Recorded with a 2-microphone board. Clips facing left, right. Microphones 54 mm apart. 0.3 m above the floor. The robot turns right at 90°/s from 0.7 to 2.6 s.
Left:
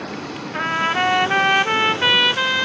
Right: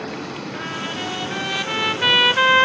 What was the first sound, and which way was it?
A trumpet, 50° left.